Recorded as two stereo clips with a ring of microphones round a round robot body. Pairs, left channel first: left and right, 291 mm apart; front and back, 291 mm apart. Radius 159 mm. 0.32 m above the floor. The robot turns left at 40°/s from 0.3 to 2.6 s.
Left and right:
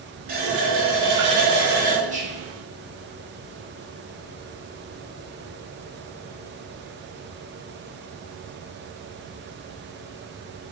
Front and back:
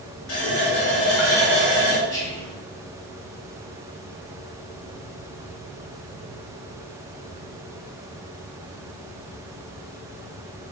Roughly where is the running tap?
Ahead right.